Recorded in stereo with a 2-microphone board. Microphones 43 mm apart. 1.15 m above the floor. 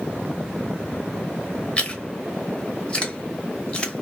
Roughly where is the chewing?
Left.